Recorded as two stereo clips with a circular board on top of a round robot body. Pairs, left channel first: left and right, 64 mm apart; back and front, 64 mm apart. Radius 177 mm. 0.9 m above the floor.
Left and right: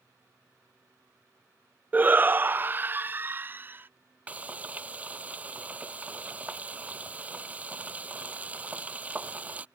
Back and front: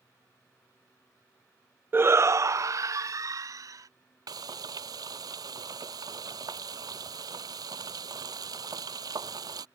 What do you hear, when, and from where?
1.9 s a shout: 40° right; by 3.9 s 30° right
4.3 s frying: 20° right